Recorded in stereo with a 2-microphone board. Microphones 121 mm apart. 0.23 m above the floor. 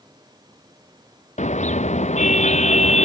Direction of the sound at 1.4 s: 75° left (ahead or behind).